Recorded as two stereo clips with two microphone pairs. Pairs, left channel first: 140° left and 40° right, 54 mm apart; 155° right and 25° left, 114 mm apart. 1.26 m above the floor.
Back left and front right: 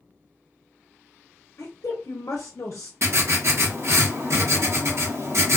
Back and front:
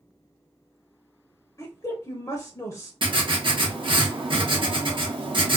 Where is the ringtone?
I don't hear a ringtone.